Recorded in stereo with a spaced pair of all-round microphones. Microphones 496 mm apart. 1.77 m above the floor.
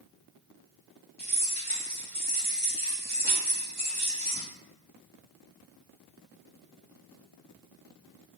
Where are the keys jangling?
20° right (ahead or behind), 1.5 m.